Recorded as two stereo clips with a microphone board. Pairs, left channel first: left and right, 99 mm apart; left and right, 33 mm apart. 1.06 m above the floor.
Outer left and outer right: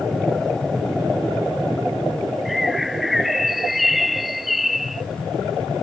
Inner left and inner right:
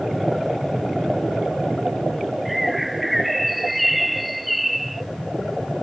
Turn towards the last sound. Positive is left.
turn(degrees=0)  # may be behind; listen again after turning